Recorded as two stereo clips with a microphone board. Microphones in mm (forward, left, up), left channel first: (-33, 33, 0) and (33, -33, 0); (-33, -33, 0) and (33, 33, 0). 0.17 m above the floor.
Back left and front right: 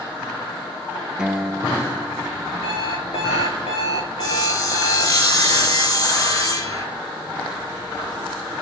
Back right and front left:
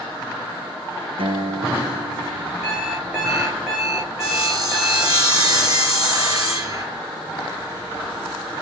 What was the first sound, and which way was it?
A guitar, 35° left.